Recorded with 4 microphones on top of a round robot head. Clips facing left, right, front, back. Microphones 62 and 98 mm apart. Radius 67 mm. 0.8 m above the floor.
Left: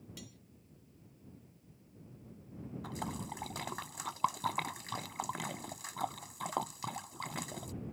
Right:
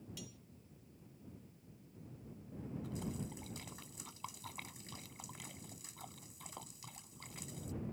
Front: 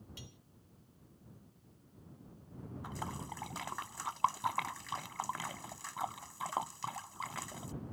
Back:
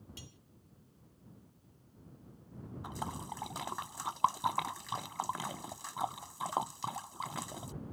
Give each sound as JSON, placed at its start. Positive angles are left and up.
{"t": 0.2, "sound": "cutlery clinking", "azimuth_deg": 130}
{"t": 2.8, "sound": "a splash", "azimuth_deg": 110}